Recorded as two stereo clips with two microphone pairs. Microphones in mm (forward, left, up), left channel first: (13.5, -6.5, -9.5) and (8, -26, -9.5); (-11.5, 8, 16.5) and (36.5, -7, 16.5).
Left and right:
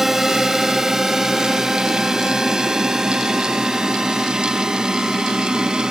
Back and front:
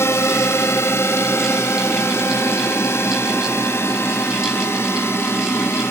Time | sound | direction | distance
0.0 | a drone | straight behind | ?